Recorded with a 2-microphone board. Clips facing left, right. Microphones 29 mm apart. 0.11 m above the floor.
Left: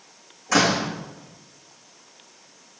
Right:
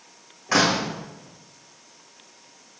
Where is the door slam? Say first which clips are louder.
Even; 35° right (ahead or behind), 6 m.